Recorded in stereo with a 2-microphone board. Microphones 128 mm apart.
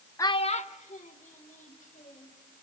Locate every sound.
0.2 s a child speaking: 25° left (ahead or behind), 0.6 m; by 2.4 s 90° left, 3.5 m